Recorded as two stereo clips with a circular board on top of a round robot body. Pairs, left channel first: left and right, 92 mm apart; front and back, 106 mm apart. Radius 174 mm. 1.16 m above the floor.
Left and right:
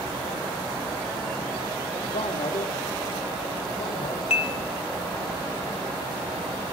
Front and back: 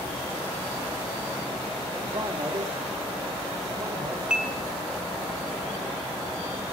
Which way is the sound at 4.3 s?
100° left.